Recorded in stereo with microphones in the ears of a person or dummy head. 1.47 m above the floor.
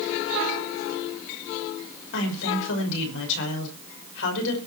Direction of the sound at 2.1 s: 75° left (ahead or behind).